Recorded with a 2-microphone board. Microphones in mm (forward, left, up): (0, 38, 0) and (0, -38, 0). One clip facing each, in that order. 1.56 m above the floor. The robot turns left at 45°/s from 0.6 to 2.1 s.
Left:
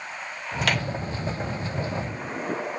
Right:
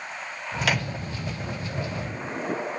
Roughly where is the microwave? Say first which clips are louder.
Even; centre.